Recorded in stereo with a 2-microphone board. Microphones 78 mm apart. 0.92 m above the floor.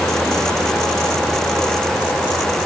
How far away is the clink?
No clink in this recording.